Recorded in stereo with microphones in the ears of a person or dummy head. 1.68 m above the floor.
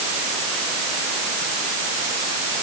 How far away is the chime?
No chime in this recording.